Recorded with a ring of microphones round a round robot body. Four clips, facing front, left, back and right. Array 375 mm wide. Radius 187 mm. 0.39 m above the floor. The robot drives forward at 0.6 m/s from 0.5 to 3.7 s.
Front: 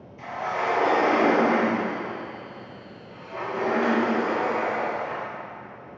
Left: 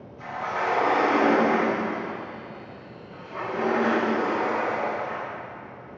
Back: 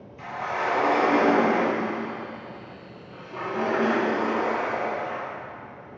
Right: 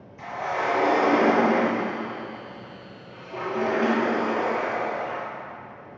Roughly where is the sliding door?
Right.